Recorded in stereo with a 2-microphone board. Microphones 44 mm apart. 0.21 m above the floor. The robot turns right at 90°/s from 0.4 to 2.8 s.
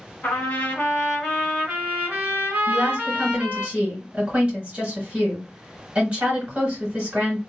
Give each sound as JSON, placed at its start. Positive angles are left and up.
{"t": 0.2, "sound": "a trumpet", "azimuth_deg": 95, "distance_m": 1.8}
{"t": 2.7, "sound": "a woman speaking", "side_deg": -40, "distance_m": 2.5}